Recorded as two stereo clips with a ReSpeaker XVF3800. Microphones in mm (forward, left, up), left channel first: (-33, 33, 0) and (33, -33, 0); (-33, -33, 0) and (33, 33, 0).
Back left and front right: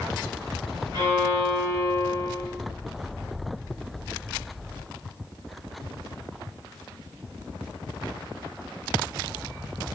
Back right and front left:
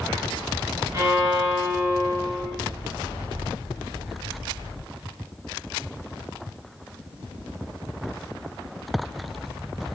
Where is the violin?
5° right, 2.5 m.